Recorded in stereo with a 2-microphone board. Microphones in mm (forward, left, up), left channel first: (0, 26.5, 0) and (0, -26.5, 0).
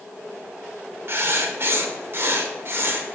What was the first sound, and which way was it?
Writing, 45° right (ahead or behind).